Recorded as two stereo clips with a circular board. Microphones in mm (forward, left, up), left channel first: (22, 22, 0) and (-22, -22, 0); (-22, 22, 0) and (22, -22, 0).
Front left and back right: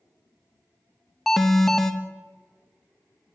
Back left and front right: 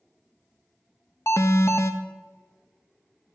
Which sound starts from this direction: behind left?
An alarm, at 1.3 s.